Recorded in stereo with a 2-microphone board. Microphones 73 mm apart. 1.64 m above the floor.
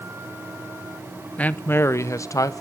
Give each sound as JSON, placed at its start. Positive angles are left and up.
{"t": 1.4, "sound": "a man speaking", "side_deg": 20, "distance_m": 0.5}